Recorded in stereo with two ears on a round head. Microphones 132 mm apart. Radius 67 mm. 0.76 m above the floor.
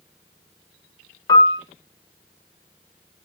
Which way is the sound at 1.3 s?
30° left (ahead or behind).